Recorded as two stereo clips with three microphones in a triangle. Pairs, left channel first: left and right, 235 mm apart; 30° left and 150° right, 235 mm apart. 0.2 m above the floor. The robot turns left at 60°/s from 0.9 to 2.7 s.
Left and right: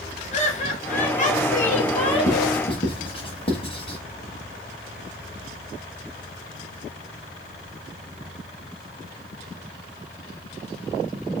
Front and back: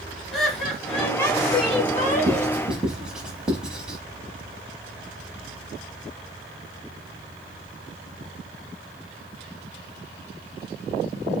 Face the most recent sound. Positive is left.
turn(degrees=125)